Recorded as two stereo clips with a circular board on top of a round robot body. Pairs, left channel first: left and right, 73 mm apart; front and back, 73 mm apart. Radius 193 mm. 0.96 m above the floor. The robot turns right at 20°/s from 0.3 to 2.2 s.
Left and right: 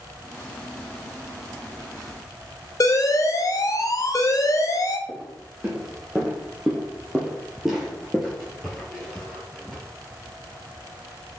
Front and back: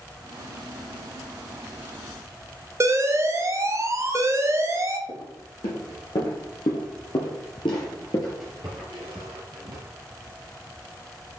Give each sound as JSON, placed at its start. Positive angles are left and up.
{"t": 2.8, "sound": "an alarm", "azimuth_deg": 130, "distance_m": 0.9}
{"t": 5.1, "sound": "footsteps", "azimuth_deg": -5, "distance_m": 3.5}